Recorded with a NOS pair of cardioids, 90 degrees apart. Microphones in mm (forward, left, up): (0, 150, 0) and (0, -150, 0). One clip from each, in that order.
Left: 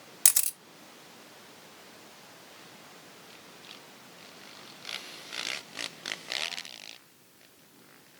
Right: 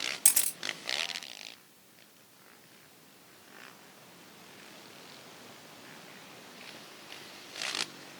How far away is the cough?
I don't hear a cough.